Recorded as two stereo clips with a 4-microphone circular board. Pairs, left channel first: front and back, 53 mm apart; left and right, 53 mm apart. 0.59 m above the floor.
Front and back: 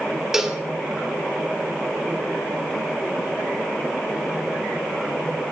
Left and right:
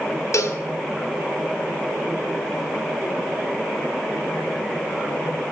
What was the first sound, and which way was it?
A cowbell, 100° left.